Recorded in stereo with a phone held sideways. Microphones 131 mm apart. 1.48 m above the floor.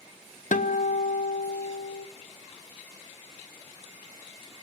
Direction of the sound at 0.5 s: 75° left (ahead or behind).